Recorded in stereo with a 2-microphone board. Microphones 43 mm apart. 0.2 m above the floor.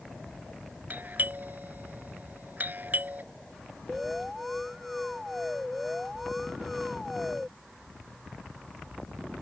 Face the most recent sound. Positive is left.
turn(degrees=0)  # may be behind; listen again after turning